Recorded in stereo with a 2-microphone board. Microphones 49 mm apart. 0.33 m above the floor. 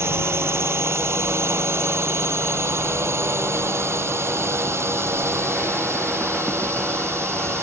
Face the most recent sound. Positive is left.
turn(degrees=-70)  # may be behind; listen again after turning